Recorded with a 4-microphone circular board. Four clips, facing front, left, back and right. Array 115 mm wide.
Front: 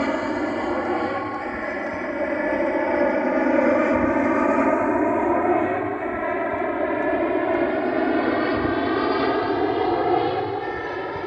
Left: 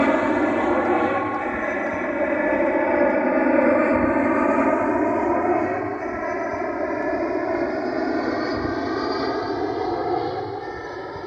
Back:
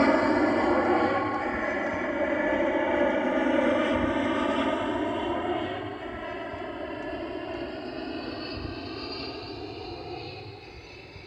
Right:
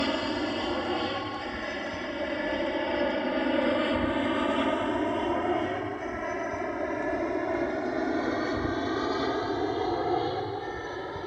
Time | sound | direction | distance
0.0 | an aircraft | 100° left | ?